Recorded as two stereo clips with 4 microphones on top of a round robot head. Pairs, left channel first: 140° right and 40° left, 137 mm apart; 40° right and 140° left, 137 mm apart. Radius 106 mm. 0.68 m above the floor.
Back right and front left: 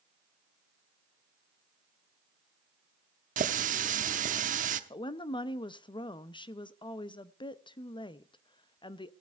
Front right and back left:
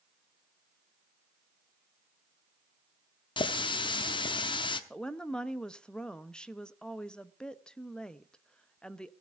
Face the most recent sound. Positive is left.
turn(degrees=-120)